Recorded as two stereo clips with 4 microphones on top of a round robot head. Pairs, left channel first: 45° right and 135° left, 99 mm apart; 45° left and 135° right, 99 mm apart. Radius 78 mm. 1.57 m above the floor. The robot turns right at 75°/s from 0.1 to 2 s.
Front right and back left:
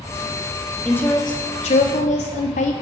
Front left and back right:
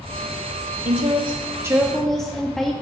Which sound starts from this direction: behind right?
A woman speaking, at 0.8 s.